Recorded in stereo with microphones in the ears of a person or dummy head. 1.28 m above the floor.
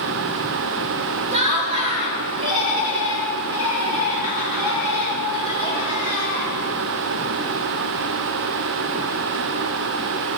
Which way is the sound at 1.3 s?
35° right (ahead or behind).